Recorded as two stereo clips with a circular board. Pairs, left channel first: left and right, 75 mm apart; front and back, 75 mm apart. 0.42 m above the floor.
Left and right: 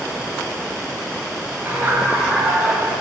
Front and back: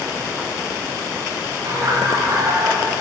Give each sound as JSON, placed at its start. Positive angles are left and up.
{"t": 1.6, "sound": "laughter", "azimuth_deg": -150, "distance_m": 2.5}